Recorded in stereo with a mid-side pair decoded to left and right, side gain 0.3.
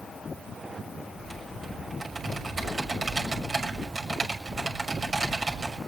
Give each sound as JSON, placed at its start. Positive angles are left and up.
{"t": 1.2, "sound": "typing on a keyboard", "azimuth_deg": -45, "distance_m": 6.5}